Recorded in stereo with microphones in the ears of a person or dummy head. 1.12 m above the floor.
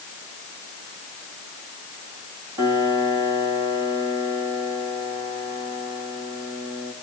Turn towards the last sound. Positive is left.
turn(degrees=-25)  # may be behind; listen again after turning